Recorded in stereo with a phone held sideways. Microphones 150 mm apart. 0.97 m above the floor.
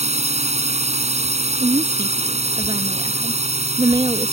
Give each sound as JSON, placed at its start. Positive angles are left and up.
{"t": 0.0, "sound": "a drone", "side_deg": -50}
{"t": 1.6, "sound": "a woman speaking", "side_deg": -35}